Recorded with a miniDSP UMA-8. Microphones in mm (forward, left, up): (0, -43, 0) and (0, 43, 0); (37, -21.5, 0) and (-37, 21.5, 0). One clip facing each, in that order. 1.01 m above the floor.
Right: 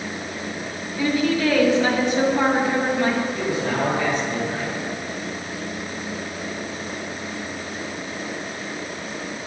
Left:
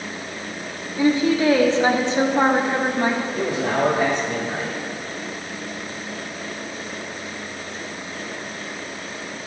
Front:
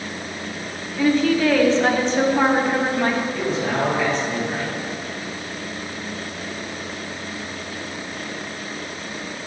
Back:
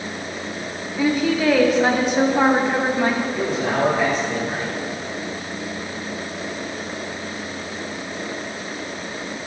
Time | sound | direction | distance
1.0 | a woman speaking | 85° left | 0.7 m
3.3 | a man speaking | 80° left | 2 m